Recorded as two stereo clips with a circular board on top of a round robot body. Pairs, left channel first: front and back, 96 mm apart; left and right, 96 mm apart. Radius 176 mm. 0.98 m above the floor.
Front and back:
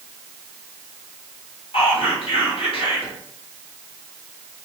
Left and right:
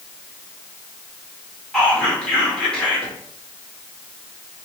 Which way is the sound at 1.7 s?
10° left.